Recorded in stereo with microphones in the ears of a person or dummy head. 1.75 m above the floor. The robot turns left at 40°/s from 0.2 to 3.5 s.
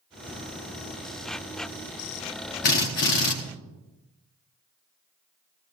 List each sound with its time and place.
2.6 s a drill: 40° left (ahead or behind), 1.0 m